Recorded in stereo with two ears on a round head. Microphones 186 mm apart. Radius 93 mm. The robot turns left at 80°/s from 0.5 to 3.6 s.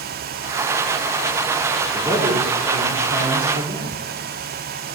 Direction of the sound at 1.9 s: 10° right.